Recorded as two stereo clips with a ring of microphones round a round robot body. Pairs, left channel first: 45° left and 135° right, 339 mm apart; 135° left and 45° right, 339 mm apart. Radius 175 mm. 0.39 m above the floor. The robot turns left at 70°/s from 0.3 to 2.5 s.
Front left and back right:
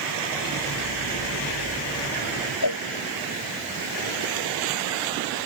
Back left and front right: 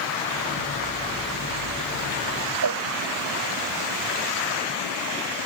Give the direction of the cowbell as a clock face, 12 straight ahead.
12 o'clock.